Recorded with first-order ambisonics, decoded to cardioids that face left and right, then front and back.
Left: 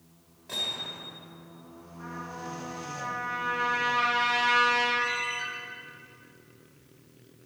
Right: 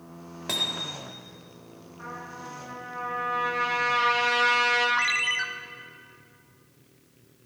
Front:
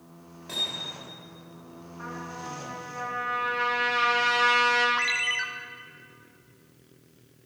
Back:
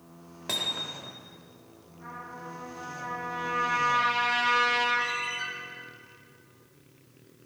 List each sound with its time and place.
0.5 s hammering: 130° right, 1.8 m
2.0 s a trumpet: 25° right, 5 m
5.0 s a ringtone: 50° right, 0.9 m